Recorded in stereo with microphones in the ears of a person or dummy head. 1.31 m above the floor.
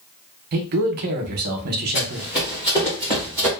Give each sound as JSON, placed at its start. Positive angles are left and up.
{"t": 0.5, "sound": "a man speaking", "side_deg": -55, "distance_m": 0.6}
{"t": 1.9, "sound": "running footsteps", "side_deg": 30, "distance_m": 1.5}